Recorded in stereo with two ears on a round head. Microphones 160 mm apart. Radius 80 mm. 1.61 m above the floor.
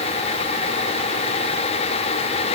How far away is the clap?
No clap in this recording.